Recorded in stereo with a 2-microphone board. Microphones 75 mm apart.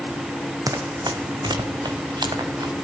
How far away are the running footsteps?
About 1.3 m.